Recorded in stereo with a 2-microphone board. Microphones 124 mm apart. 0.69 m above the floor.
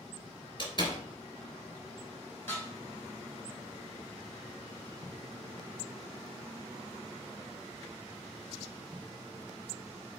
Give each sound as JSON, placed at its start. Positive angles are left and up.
{"t": 0.6, "sound": "a door slam", "side_deg": 40, "distance_m": 2.5}
{"t": 2.5, "sound": "dishes clattering", "side_deg": 20, "distance_m": 3.5}